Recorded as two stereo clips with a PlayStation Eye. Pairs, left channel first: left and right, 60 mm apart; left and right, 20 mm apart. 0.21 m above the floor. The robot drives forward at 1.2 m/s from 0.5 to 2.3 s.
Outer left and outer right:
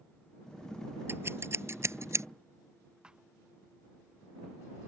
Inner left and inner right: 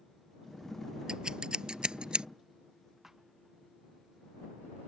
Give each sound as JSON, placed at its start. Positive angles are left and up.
{"t": 1.1, "sound": "scissors", "side_deg": -40}
{"t": 3.0, "sound": "a thud", "side_deg": -15}